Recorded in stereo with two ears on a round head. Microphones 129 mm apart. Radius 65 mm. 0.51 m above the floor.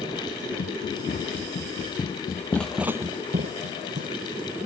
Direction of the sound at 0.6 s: 60° left (ahead or behind).